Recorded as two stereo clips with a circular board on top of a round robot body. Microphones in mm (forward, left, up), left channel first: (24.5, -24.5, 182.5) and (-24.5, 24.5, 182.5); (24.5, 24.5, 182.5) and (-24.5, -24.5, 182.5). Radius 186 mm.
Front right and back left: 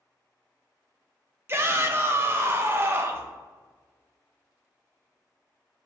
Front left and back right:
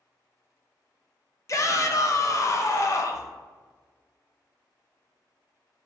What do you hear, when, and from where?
1.5 s a shout: 85° left, 1.1 m